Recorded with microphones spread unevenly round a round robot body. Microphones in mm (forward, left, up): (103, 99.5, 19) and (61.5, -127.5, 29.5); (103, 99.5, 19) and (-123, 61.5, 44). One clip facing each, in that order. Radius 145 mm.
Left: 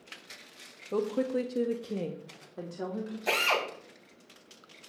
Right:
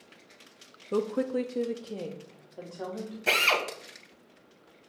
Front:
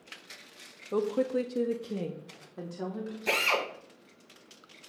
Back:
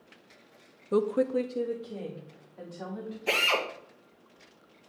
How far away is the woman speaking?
About 0.6 m.